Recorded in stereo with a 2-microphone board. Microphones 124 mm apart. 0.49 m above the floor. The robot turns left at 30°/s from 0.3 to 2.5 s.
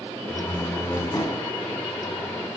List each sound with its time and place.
0.3 s a door slam: 175° left, 3 m; by 1.5 s 135° left, 3 m